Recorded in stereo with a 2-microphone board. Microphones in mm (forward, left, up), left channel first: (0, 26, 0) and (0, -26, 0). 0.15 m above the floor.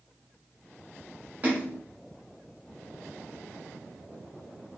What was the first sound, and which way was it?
A splash, 35° right (ahead or behind).